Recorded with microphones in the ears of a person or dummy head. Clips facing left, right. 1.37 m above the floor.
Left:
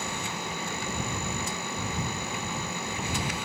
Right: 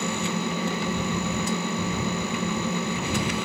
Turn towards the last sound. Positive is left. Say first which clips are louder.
# right 8 dB
turn(degrees=-60)  # may be behind; listen again after turning